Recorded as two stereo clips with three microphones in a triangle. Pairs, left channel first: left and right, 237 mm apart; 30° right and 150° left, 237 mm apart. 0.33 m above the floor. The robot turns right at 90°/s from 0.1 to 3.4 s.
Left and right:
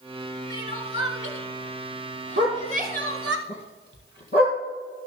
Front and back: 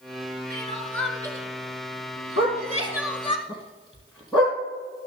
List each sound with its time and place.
0.5 s crying: 10° left, 1.0 m; by 3.4 s 90° right, 1.0 m
2.4 s a dog barking: 50° right, 2 m; by 4.6 s 40° left, 2 m